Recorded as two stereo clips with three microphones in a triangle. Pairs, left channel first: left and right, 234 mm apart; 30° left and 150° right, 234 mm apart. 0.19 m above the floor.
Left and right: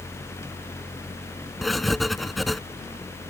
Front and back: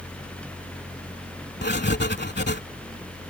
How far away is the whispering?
I don't hear whispering.